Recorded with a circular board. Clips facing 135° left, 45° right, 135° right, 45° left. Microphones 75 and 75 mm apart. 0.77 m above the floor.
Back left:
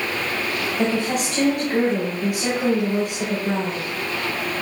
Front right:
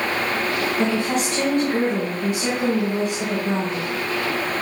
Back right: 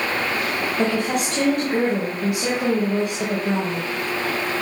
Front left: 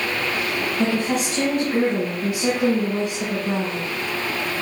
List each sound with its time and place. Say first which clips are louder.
0.8 s a woman speaking: back left 2 dB, even; 150° right, 4.5 m